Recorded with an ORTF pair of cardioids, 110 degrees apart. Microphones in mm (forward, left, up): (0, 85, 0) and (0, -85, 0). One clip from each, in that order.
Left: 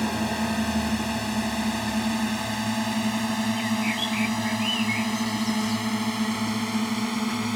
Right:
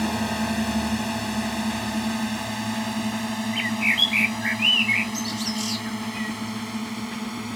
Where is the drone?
5° right; by 7.6 s 30° left.